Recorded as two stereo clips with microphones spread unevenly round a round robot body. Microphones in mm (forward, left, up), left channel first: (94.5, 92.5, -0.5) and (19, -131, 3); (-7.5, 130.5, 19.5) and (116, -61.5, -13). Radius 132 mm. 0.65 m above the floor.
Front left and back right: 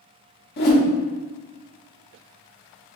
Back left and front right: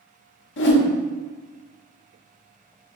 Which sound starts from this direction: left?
A whoosh, at 0.6 s.